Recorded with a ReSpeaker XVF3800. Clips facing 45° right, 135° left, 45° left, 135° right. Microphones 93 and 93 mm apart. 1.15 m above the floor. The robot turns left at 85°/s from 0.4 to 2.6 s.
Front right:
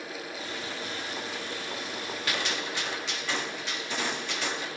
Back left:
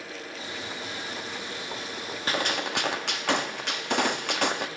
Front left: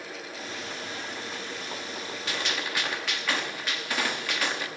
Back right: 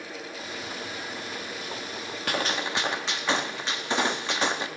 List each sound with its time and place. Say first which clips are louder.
2.3 s a gunshot: back left 5 dB, back right 5 dB; 170° right, 1.4 m; by 4.7 s 160° left, 1.4 m